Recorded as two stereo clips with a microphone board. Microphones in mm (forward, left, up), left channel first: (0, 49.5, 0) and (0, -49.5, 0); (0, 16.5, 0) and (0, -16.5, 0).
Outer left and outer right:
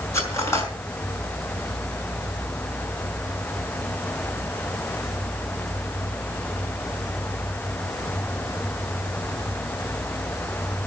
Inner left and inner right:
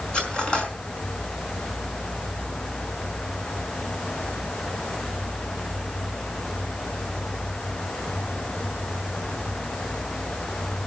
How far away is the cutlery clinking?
About 4.5 m.